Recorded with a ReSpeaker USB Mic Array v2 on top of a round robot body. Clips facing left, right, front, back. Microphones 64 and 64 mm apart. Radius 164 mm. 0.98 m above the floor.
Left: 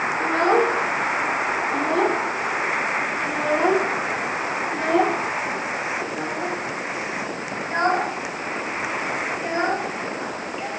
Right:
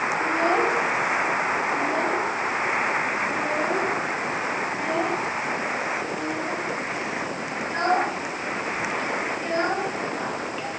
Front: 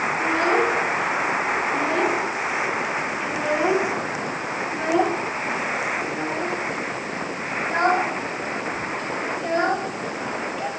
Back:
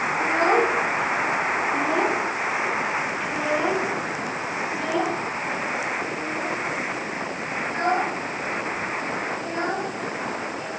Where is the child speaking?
115° left, 4 m; by 10.7 s 15° left, 5.5 m.